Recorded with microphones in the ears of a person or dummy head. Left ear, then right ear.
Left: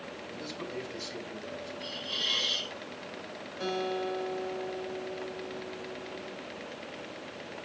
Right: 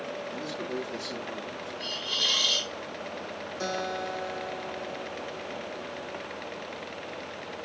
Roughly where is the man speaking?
Centre.